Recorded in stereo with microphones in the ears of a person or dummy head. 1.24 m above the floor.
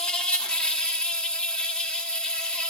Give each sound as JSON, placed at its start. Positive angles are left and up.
{"t": 0.0, "sound": "an insect", "side_deg": 5, "distance_m": 1.4}